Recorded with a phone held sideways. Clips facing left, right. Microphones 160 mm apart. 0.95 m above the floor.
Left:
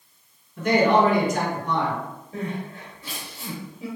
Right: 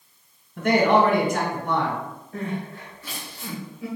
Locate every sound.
0.6 s a man speaking: 55° right (ahead or behind), 1.2 m
2.3 s crying: 20° left (ahead or behind), 1.5 m